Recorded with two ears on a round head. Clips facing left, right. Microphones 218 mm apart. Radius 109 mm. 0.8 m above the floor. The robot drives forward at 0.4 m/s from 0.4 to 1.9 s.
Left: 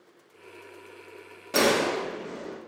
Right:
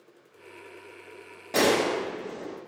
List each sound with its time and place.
1.5 s a gunshot: 15° left (ahead or behind), 0.7 m; by 2.6 s 10° left (ahead or behind), 0.9 m